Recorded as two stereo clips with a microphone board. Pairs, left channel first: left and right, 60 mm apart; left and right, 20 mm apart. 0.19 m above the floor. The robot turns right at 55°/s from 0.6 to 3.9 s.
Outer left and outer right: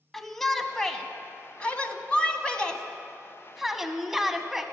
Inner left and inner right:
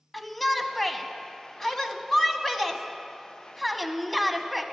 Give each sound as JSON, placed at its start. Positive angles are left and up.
{"t": 0.1, "sound": "a shout", "side_deg": 5, "distance_m": 1.2}